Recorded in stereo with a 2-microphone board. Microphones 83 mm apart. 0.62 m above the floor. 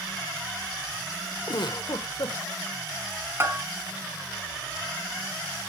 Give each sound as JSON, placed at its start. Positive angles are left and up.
{"t": 1.5, "sound": "a giggle", "side_deg": 65, "distance_m": 0.8}
{"t": 3.4, "sound": "a bell", "side_deg": -30, "distance_m": 2.5}